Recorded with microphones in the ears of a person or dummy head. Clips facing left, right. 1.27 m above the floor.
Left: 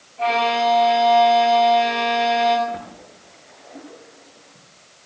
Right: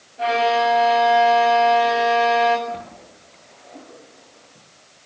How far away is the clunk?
I don't hear a clunk.